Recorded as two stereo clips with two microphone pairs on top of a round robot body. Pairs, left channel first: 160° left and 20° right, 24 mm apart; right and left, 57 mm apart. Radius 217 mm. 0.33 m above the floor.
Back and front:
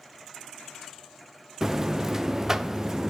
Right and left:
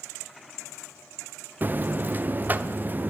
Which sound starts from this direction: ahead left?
A buzzer, at 1.6 s.